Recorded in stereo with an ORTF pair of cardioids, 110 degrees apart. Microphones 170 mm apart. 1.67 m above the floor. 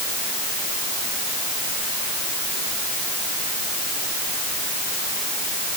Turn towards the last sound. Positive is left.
No sound to turn to.